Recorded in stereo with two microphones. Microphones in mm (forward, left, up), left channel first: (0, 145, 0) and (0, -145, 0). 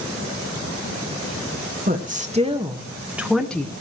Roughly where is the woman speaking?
Right.